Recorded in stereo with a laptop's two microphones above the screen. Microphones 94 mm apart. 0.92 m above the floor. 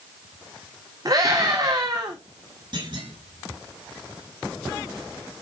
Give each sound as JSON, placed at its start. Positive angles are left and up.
{"t": 1.1, "sound": "a scream", "side_deg": -45, "distance_m": 2.0}
{"t": 2.7, "sound": "a clunk", "side_deg": -55, "distance_m": 8.5}